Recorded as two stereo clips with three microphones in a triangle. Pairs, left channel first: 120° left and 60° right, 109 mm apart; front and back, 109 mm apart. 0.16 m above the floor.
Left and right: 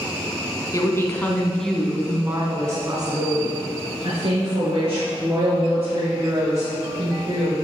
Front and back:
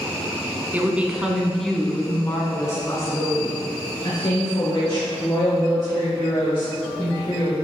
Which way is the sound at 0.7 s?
120° left.